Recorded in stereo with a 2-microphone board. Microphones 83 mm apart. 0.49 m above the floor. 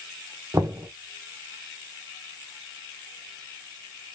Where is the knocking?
35° right (ahead or behind), 1.0 m.